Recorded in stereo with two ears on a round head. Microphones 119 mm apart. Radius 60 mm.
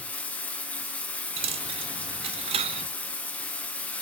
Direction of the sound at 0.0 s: 10° left (ahead or behind).